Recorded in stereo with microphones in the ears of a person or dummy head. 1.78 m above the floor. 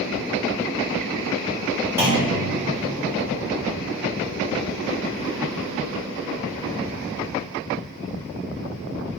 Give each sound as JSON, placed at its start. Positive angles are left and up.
{"t": 2.0, "sound": "a clunk", "side_deg": -15, "distance_m": 2.5}